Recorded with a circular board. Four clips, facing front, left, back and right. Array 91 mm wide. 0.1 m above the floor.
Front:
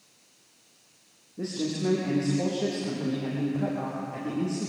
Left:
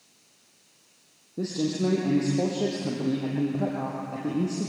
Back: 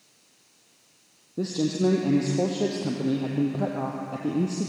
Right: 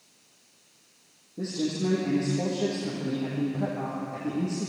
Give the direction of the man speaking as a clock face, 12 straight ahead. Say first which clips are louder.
Left 2 dB, back 5 dB; 7 o'clock.